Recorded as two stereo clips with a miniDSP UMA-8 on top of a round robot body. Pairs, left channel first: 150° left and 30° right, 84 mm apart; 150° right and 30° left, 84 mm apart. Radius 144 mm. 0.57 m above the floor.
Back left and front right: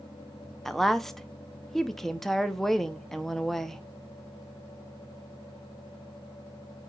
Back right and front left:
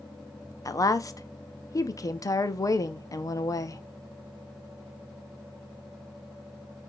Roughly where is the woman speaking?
Behind right.